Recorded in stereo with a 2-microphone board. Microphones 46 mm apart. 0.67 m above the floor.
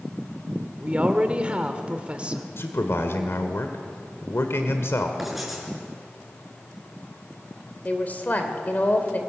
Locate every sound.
0.8 s a woman speaking: 25° right (ahead or behind), 2 m
2.6 s a man speaking: 60° left (ahead or behind), 2.0 m
5.2 s writing: 5° right (ahead or behind), 7 m
7.8 s a woman speaking: 35° left (ahead or behind), 2.5 m